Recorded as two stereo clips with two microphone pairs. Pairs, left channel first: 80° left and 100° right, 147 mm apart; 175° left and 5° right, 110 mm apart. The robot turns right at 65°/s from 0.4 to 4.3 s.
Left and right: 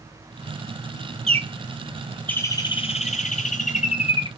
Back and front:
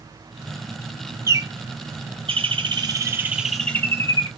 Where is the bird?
65° right, 0.7 m; by 4.3 s 130° left, 0.7 m.